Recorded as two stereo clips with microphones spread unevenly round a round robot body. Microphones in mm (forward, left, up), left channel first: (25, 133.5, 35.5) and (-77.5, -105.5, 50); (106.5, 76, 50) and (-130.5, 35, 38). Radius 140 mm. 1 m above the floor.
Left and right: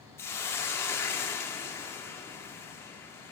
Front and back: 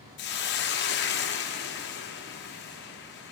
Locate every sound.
0.2 s a hiss: 15° right, 0.6 m